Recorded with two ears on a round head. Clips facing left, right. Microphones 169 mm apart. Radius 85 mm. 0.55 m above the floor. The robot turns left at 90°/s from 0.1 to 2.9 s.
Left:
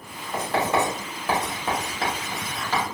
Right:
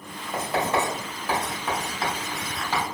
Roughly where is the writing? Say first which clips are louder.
Left 2 dB; right.